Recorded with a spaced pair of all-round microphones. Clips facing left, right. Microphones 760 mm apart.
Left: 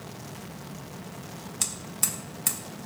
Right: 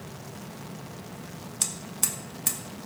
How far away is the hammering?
About 1.3 m.